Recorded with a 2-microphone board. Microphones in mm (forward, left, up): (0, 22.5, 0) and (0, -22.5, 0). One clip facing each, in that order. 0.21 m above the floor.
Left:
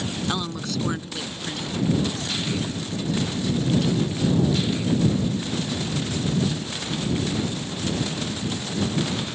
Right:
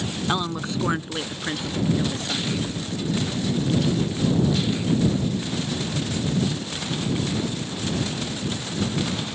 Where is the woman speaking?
15° right (ahead or behind); by 2.6 s 40° right (ahead or behind).